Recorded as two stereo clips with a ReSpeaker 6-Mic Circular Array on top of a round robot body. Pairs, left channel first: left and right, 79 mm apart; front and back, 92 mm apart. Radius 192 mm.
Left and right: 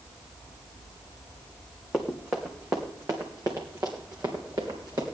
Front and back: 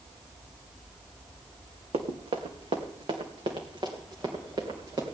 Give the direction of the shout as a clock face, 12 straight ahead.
No shout in this recording.